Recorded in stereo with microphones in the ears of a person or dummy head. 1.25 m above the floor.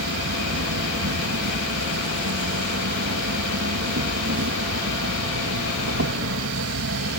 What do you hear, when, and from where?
0.0 s an insect: 65° right (ahead or behind)